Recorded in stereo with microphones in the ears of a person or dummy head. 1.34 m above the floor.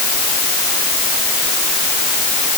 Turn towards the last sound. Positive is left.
No sound to turn to.